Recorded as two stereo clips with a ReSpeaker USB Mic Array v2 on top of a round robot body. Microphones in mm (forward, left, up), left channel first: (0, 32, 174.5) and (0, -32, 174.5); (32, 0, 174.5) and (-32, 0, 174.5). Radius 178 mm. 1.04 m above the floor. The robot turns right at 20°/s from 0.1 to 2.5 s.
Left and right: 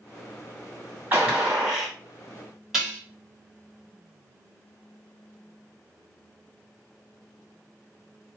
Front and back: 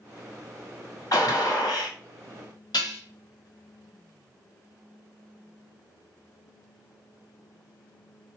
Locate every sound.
1.1 s a gunshot: 30° right, 2 m; by 1.9 s 15° right, 2 m
2.7 s dishes clattering: 5° right, 1.2 m